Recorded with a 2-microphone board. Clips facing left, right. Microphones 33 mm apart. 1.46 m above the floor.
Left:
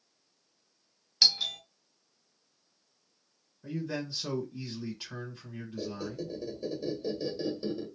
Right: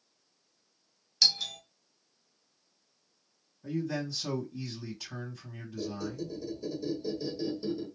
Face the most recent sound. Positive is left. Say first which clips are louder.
# right 1 dB
turn(degrees=30)  # may be behind; listen again after turning